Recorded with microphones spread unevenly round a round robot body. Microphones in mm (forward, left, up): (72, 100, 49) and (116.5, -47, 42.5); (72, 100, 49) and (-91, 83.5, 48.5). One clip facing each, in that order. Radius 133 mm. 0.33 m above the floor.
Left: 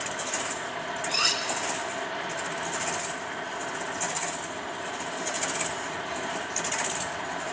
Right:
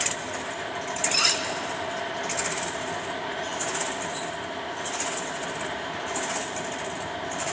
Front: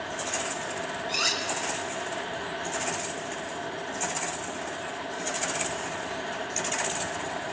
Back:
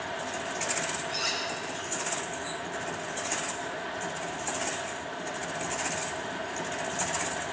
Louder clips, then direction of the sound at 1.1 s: Right 2 dB, front 2 dB; 15° left.